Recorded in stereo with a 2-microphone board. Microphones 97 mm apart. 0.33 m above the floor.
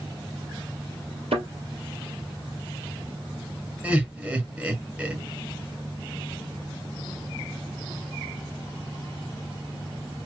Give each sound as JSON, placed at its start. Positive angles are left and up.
{"t": 1.3, "sound": "a thud", "side_deg": -85, "distance_m": 2.5}
{"t": 3.8, "sound": "laughter", "side_deg": -15, "distance_m": 1.8}